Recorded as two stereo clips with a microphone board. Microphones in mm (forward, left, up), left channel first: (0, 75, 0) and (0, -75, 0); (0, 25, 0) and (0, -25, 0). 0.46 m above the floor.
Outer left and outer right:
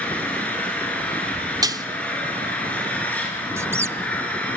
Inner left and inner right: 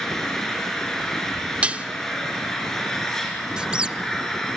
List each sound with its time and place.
0.0 s an engine running: 10° left (ahead or behind), 5 m
1.6 s dishes clattering: 25° right (ahead or behind), 0.6 m
3.6 s a squeak: 15° right (ahead or behind), 0.6 m